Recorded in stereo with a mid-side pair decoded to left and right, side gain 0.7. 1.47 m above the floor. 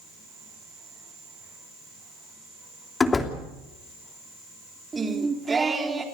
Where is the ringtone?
I don't hear a ringtone.